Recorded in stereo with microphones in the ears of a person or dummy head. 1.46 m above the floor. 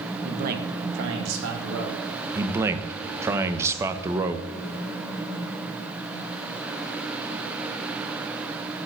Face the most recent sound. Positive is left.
turn(degrees=-15)  # may be behind; listen again after turning